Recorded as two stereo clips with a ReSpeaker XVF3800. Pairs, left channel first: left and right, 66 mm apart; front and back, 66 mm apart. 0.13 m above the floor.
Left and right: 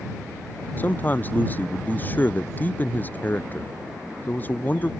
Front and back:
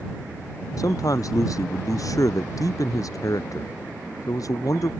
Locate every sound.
0.8 s a man speaking: 30° left